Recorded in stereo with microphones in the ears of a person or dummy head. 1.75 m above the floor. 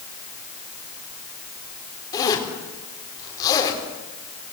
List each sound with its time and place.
2.1 s a zipper: 20° left (ahead or behind), 5 m